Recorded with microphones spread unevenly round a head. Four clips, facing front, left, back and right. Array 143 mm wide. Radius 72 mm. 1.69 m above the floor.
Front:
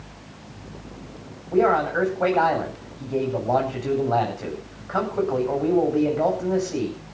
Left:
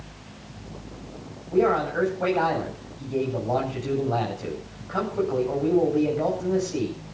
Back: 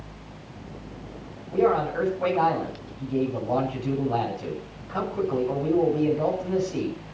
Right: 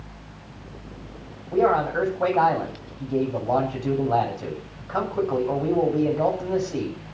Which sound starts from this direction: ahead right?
A man speaking, at 1.5 s.